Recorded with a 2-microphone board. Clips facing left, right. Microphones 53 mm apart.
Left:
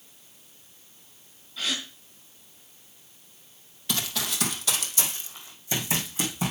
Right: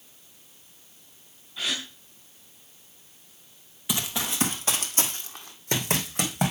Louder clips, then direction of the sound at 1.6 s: Even; 15° right (ahead or behind).